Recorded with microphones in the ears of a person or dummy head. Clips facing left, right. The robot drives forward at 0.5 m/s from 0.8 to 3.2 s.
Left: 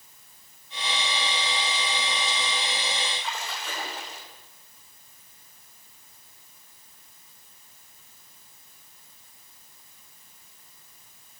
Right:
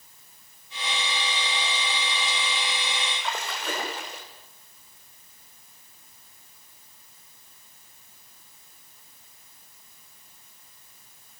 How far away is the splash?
About 4 m.